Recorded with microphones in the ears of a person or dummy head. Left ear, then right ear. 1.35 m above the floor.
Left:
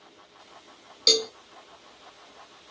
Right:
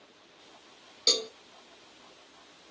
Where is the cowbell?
10° left (ahead or behind), 1.4 m.